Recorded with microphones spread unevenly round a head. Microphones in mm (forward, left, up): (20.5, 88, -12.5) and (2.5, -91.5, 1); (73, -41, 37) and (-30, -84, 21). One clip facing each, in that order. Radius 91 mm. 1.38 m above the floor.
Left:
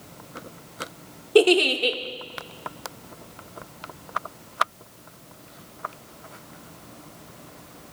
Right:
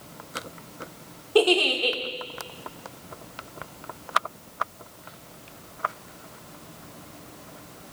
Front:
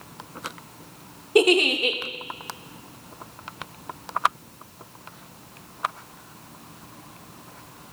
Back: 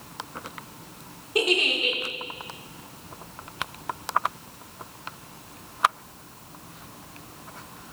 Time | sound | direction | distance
1.4 | a giggle | 25° left | 1.3 m